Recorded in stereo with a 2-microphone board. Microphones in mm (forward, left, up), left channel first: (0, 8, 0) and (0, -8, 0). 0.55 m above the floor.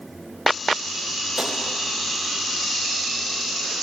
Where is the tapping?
70° right (ahead or behind), 3 m.